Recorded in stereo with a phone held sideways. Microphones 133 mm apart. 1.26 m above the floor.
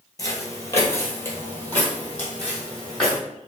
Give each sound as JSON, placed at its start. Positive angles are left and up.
{"t": 0.2, "sound": "footsteps", "side_deg": 25, "distance_m": 1.3}